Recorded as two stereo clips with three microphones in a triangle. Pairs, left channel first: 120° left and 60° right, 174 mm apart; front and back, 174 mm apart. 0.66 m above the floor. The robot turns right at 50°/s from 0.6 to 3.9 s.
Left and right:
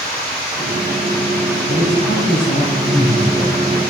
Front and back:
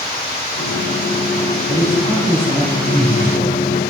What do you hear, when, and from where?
1.7 s a man speaking: 80° left, 2.5 m; by 3.6 s straight behind, 2.5 m